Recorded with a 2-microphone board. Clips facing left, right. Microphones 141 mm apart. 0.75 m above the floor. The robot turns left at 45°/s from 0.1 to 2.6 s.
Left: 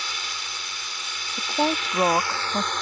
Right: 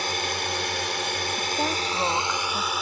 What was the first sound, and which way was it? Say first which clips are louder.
A drone: right 9 dB; 60° right.